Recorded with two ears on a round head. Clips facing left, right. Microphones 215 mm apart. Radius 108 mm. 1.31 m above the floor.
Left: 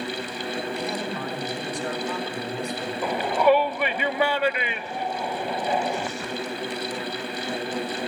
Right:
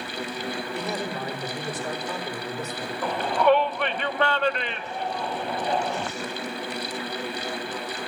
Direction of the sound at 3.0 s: 10° left (ahead or behind).